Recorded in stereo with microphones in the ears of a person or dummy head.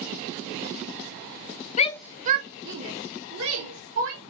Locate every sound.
1.8 s a shout: 40° left (ahead or behind), 0.6 m; by 4.2 s 80° right, 3.5 m